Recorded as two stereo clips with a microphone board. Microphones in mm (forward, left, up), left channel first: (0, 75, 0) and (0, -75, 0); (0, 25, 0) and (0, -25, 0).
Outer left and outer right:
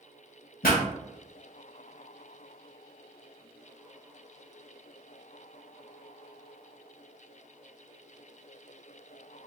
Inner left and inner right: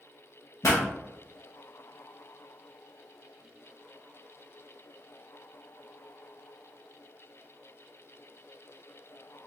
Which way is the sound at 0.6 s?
75° left (ahead or behind).